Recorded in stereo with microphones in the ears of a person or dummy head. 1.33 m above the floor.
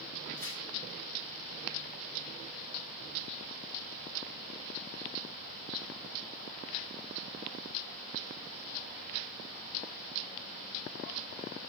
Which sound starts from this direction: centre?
Tearing paper, at 0.4 s.